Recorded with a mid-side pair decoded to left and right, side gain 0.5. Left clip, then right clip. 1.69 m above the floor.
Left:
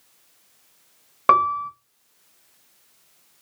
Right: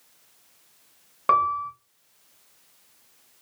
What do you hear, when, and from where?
1.3 s a piano: 40° left, 0.6 m